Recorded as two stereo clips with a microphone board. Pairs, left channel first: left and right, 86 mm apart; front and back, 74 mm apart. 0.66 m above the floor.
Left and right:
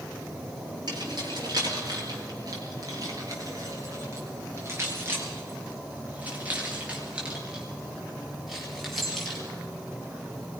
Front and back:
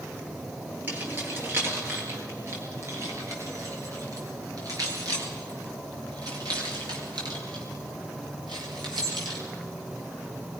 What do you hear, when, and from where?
0.9 s keys jangling: 120° right, 7.5 m; by 9.4 s straight behind, 8 m